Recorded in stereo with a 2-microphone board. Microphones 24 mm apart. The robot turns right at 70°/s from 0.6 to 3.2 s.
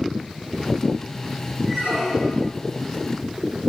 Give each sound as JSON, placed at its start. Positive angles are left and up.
{"t": 1.7, "sound": "a squeak", "azimuth_deg": -10, "distance_m": 9.5}